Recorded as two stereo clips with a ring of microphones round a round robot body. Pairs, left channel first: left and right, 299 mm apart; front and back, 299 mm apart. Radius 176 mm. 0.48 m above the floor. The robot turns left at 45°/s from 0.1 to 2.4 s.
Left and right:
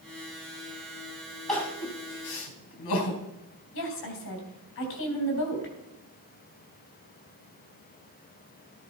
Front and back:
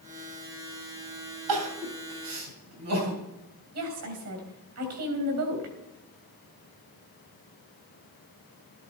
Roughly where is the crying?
Behind.